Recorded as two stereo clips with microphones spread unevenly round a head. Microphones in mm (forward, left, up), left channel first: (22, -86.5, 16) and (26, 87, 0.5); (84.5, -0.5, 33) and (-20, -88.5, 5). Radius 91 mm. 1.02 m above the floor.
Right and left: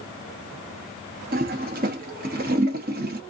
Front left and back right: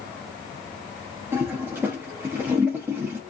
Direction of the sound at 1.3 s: 135° left.